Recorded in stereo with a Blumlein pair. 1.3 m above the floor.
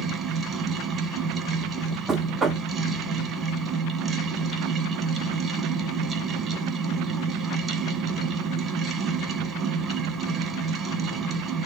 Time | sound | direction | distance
0.0 | a fan | 20° right | 1.3 m
2.1 | knocking | 15° right | 0.8 m